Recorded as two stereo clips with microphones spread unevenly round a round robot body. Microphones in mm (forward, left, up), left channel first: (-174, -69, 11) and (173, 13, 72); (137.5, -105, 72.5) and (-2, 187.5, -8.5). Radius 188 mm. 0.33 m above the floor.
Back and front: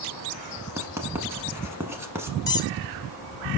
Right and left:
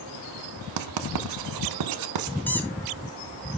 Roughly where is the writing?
Left.